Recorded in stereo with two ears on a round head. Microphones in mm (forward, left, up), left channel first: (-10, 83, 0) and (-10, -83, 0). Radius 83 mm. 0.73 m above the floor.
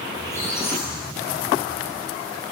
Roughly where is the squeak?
Centre.